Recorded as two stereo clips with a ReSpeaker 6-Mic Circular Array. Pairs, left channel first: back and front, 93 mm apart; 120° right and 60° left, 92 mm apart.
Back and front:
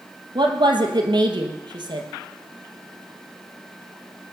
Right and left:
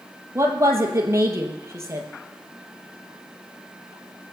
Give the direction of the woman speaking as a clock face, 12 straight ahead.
12 o'clock.